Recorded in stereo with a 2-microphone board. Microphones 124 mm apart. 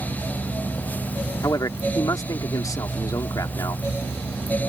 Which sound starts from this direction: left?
A man speaking, at 1.4 s.